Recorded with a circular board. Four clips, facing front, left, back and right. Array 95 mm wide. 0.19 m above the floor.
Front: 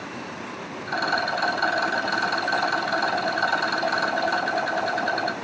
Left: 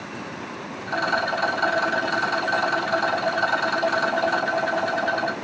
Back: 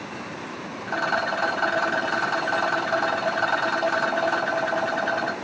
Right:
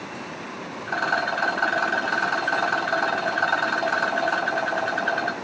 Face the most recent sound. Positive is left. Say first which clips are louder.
# left 1 dB, even
turn(degrees=-155)